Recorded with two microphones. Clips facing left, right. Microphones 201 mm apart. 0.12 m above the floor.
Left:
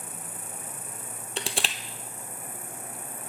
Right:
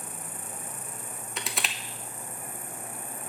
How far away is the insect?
About 0.8 m.